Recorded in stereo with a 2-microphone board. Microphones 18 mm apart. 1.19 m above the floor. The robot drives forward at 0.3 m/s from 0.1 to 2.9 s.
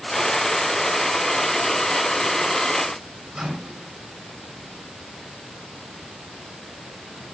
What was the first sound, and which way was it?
A microwave, 85° right.